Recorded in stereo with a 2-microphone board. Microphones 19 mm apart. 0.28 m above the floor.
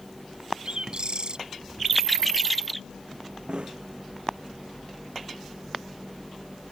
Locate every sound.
0.7 s a bird: 50° right (ahead or behind)
3.5 s a snare drum: 65° right (ahead or behind)